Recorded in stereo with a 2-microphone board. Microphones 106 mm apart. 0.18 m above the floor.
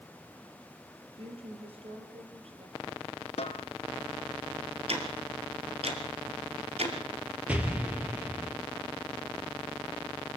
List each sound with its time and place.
1.2 s a woman speaking: 65° right (ahead or behind), 4.5 m
3.4 s a snare drum: 75° left (ahead or behind), 1.4 m
4.9 s ticking: 70° right (ahead or behind), 2.5 m
7.5 s an explosion: 15° right (ahead or behind), 2.5 m